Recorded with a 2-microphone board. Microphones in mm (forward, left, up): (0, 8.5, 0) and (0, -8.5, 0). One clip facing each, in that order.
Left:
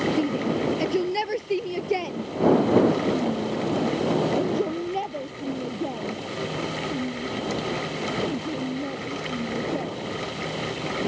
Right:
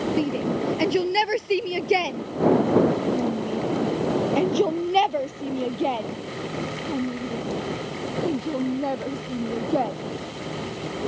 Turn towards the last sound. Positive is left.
turn(degrees=-70)  # may be behind; listen again after turning